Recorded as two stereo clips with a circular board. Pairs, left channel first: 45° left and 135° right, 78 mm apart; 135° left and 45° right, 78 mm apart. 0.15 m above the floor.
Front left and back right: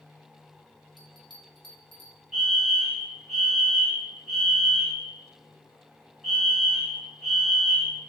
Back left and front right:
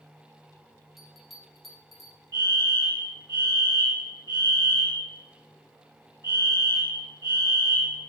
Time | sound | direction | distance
1.0 | a bell | 135° right | 2 m
2.3 | a fire alarm | 45° right | 5 m